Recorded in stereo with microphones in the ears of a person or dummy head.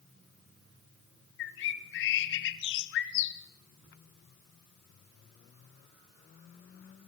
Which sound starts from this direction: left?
A bird, at 1.4 s.